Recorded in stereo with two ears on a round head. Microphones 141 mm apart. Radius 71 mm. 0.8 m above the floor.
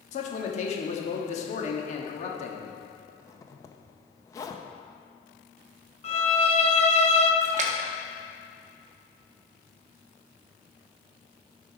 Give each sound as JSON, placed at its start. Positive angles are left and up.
{"t": 0.1, "sound": "a man speaking", "side_deg": 45, "distance_m": 1.2}
{"t": 3.1, "sound": "a zipper", "side_deg": 20, "distance_m": 0.6}
{"t": 6.0, "sound": "a violin", "side_deg": 40, "distance_m": 0.7}
{"t": 7.4, "sound": "a splash", "side_deg": -45, "distance_m": 0.7}